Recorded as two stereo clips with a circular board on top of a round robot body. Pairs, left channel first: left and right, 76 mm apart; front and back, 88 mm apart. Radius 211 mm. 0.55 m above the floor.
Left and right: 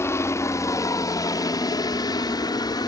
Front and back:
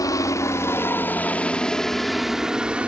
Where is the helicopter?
40° left; by 2.9 s 105° left.